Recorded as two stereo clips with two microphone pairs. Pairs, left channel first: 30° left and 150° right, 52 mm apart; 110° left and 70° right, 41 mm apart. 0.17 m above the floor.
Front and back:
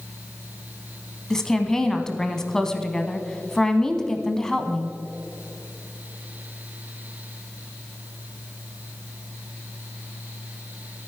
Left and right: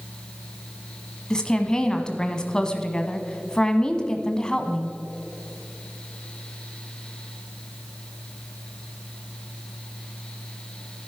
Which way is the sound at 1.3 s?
80° left.